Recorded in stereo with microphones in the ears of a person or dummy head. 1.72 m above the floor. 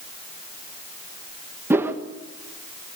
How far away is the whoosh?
About 1.4 m.